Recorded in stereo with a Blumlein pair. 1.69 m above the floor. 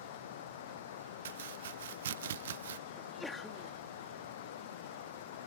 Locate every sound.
0.0 s running water: 60° left
1.2 s chopping: 60° right
3.0 s a sneeze: 10° left